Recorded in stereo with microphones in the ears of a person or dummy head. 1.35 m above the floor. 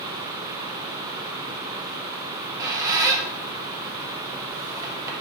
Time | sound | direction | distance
2.3 | a squeak | 15° right (ahead or behind) | 0.6 m